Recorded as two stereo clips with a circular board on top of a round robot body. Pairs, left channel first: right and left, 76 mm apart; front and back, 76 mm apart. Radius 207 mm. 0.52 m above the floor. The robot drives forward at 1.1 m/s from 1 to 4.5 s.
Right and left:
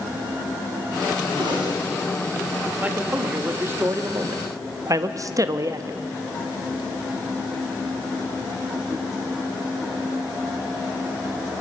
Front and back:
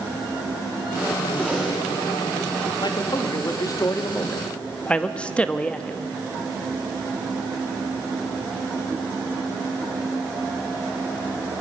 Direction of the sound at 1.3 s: 75° left.